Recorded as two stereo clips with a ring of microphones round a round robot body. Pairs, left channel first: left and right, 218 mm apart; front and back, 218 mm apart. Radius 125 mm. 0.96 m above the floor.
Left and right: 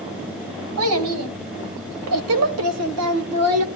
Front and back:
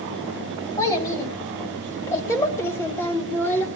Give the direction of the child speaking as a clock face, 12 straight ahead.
3 o'clock.